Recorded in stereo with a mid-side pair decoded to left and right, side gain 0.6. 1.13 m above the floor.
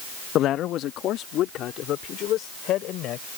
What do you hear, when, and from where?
0.3 s a man speaking: 55° left; by 3.3 s 60° left